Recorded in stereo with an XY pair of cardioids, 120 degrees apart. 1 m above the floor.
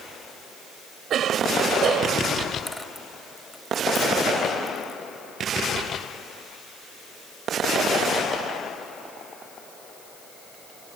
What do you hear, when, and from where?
1.1 s a cough: 55° right
2.7 s a dropped coin: 5° left